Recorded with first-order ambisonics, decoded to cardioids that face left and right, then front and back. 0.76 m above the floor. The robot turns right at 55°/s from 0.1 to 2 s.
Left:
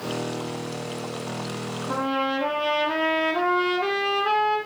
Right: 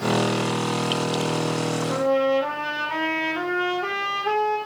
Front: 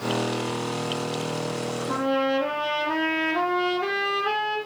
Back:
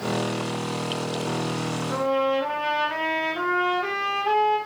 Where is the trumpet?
60° left, 6.5 m; by 4.6 s 65° left, 6.5 m.